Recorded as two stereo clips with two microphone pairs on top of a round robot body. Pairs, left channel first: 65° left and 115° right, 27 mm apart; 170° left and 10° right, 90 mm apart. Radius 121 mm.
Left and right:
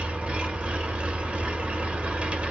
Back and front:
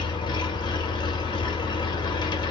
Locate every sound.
0.0 s an engine running: 155° right, 1.3 m